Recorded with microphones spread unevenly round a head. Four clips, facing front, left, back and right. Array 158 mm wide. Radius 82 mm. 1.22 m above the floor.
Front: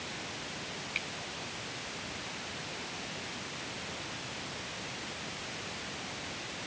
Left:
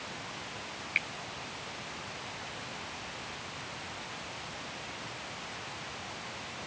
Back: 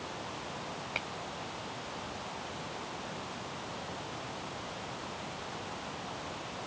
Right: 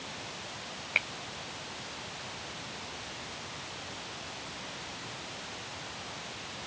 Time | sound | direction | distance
0.9 | a finger snap | 145° right | ?